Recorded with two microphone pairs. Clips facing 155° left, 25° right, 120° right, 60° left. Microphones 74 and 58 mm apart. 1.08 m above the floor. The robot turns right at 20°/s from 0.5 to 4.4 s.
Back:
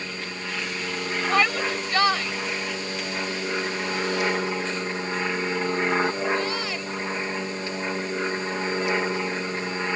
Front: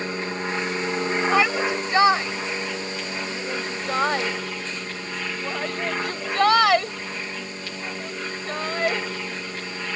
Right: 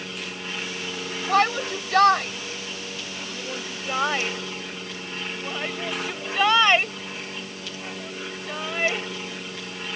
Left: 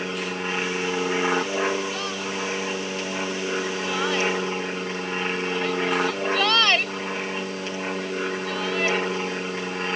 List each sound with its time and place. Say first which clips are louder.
0.0 s an aircraft: front 6 dB, left 6 dB; 20° left; by 10.0 s 95° left
1.3 s a shout: front 1 dB, right 2 dB; 110° right; by 9.1 s 50° right